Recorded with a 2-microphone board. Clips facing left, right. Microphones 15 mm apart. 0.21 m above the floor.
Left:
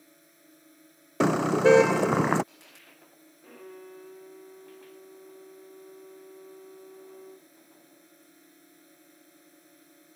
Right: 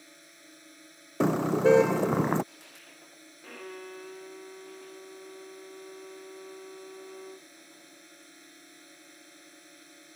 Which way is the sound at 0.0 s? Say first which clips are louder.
Right 5 dB; 35° right (ahead or behind).